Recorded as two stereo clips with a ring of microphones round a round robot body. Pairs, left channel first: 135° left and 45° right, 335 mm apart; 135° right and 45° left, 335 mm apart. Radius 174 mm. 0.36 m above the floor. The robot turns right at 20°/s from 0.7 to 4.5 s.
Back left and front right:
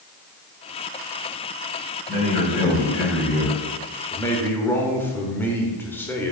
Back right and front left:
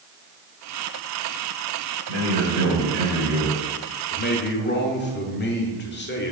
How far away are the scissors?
I don't hear scissors.